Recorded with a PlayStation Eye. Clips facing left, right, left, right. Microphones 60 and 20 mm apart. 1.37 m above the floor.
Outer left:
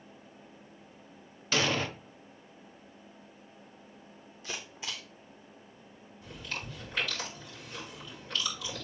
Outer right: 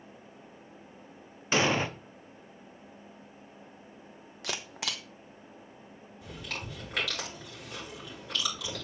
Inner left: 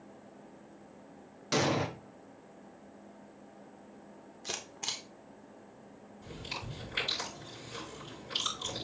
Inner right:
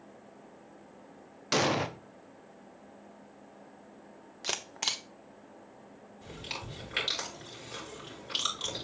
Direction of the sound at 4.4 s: 75° right (ahead or behind).